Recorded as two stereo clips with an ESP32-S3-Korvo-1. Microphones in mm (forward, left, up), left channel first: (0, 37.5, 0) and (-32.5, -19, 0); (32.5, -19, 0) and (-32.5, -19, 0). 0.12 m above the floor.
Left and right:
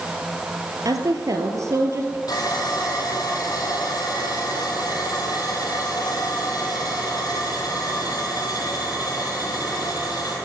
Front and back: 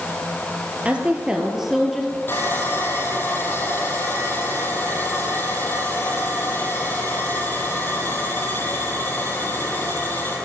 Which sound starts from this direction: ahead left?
Sawing, at 2.3 s.